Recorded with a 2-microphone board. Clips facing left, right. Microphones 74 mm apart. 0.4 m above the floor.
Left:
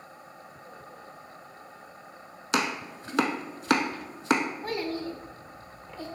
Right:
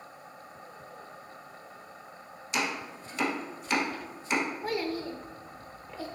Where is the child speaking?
5° right (ahead or behind), 0.6 m.